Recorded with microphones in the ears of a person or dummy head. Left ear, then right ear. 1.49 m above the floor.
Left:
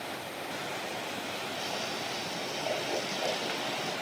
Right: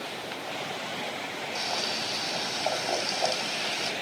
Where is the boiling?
65° right (ahead or behind), 2.5 m.